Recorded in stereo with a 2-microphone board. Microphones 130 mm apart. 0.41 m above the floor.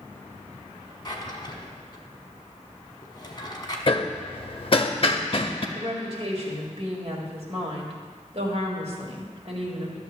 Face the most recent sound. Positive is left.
turn(degrees=-50)  # may be behind; listen again after turning